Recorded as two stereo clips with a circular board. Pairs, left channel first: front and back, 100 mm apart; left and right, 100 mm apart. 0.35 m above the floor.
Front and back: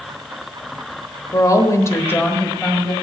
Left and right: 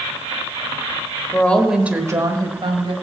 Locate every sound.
1.3 s a woman speaking: 30° left, 1.1 m; by 2.9 s 85° right, 1.8 m